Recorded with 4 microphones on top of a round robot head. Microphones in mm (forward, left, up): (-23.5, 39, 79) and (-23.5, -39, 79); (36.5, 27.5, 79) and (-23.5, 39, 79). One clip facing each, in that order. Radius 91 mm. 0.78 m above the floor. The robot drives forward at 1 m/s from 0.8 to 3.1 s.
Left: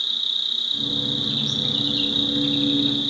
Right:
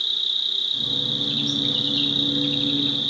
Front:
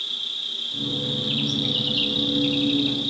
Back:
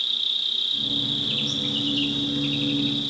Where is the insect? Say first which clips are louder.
Even, back 3 dB; 55° left, 2 m; by 3.1 s 145° left, 2.5 m.